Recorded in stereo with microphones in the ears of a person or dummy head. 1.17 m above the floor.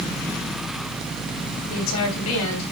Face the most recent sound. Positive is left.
turn(degrees=80)